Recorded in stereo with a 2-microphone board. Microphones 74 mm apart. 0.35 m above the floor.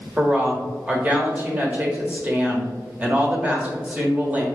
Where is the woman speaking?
20° right (ahead or behind), 0.9 m.